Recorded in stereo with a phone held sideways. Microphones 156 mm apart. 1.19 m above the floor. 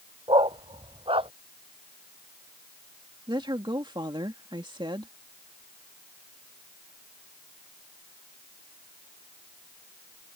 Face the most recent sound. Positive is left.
turn(degrees=-30)  # may be behind; listen again after turning